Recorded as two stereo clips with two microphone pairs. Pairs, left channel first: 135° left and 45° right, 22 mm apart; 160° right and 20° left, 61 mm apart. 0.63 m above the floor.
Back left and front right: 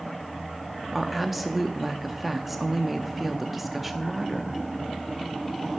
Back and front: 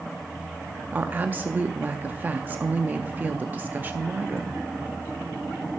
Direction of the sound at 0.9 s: 30° left.